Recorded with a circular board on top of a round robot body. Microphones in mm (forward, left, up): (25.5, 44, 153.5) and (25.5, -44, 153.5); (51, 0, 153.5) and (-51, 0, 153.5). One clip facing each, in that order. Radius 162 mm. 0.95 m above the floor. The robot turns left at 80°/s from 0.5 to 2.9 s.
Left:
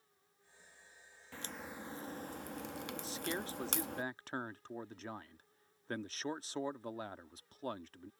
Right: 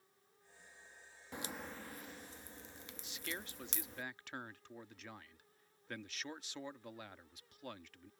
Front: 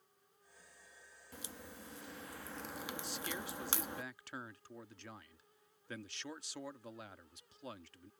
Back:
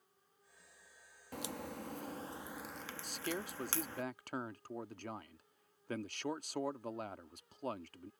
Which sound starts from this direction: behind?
A crack, at 1.3 s.